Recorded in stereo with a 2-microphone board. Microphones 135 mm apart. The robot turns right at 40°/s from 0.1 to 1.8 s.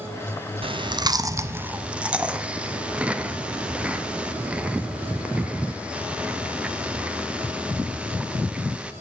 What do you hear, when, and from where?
0.6 s chewing: 45° right (ahead or behind), 0.6 m; by 8.9 s 10° right (ahead or behind), 0.6 m